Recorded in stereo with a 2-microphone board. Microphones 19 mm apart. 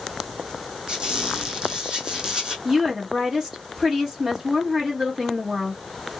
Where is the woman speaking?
25° right (ahead or behind), 1.3 m.